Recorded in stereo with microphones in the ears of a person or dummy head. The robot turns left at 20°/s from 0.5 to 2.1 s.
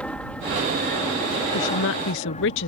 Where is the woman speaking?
70° left (ahead or behind); by 2.7 s 60° left (ahead or behind).